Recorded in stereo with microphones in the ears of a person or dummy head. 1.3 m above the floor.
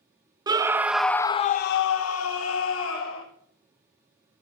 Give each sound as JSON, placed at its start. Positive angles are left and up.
{"t": 0.5, "sound": "a scream", "side_deg": -25, "distance_m": 0.8}